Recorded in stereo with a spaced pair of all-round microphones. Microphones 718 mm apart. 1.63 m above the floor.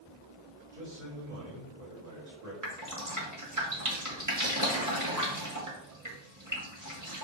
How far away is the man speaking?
About 2.5 m.